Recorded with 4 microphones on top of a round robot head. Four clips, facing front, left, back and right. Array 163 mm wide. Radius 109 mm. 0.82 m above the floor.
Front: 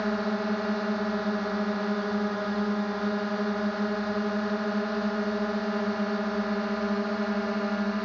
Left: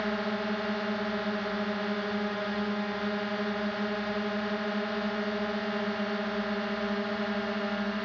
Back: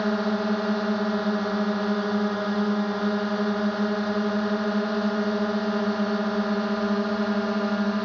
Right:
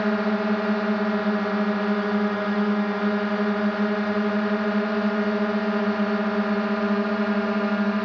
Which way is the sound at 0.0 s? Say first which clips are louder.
Right 8 dB, back 3 dB; 110° right.